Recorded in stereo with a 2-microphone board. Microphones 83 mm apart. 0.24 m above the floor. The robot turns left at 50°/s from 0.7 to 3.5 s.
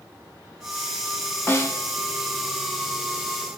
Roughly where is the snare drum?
Left.